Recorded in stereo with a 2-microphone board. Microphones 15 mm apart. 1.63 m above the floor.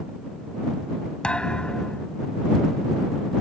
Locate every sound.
1.2 s a thud: 75° left (ahead or behind)